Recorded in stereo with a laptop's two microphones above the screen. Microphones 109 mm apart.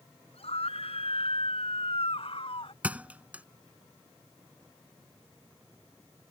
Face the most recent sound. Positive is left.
turn(degrees=-15)  # may be behind; listen again after turning